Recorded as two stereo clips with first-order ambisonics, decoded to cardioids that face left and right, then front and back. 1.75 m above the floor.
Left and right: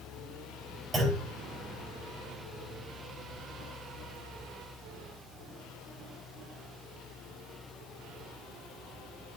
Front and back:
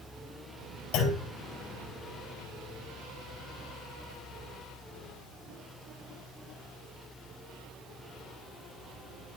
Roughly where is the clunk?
Ahead.